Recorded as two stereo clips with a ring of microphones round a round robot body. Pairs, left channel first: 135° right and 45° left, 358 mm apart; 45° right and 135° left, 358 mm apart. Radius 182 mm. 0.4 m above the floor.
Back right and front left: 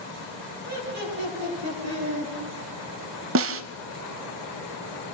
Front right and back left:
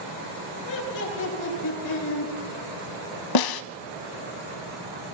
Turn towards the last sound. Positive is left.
turn(degrees=-10)